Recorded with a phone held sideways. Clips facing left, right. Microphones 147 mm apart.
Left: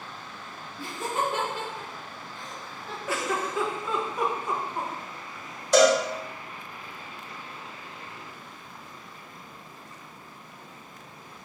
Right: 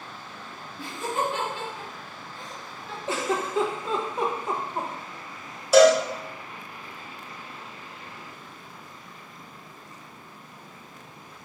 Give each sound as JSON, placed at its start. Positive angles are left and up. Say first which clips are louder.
{"t": 0.8, "sound": "laughter", "louder": "right 1 dB", "side_deg": 45, "distance_m": 1.7}
{"t": 3.1, "sound": "a giggle", "louder": "right 2 dB", "side_deg": -25, "distance_m": 0.6}
{"t": 5.7, "sound": "a cowbell", "louder": "right 4 dB", "side_deg": -5, "distance_m": 0.9}